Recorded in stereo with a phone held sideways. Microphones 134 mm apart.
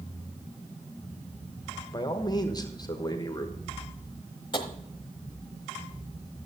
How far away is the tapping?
About 1.1 m.